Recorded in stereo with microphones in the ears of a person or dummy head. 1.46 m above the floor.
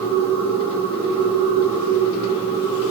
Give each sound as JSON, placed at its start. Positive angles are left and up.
{"t": 0.0, "sound": "a machine running", "side_deg": 25, "distance_m": 5.5}